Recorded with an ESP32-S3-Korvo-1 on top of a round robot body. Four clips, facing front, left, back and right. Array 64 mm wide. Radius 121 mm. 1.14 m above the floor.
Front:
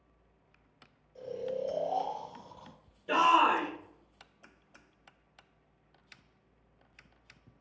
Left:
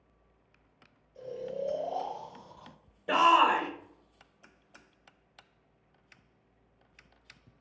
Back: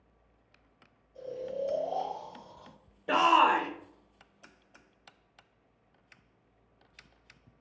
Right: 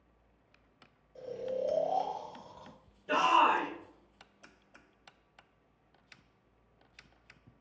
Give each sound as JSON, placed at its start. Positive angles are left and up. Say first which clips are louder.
{"t": 1.1, "sound": "snoring", "louder": "right 1 dB, even", "azimuth_deg": -75, "distance_m": 0.9}
{"t": 3.1, "sound": "a shout", "louder": "left 3 dB, back 1 dB", "azimuth_deg": 140, "distance_m": 0.9}